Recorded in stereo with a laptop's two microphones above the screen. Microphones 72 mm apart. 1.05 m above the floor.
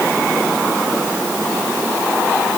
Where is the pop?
I don't hear a pop.